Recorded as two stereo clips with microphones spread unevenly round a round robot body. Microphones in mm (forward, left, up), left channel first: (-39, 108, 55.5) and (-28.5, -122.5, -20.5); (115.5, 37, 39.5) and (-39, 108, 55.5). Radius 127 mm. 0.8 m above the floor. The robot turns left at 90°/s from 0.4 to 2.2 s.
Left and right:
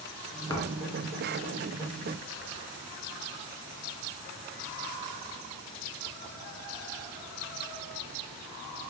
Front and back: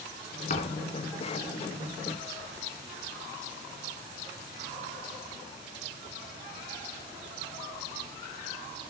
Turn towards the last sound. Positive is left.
turn(degrees=-135)